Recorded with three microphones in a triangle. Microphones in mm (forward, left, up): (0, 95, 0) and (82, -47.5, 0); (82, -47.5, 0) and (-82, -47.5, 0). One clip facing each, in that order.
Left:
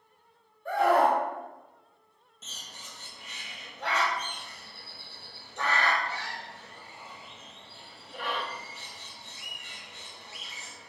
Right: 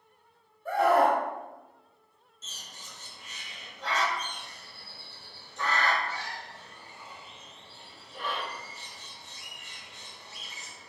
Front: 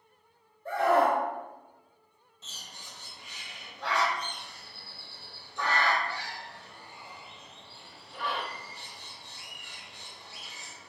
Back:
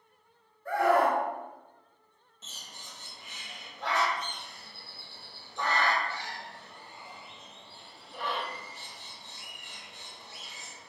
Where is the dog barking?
I don't hear a dog barking.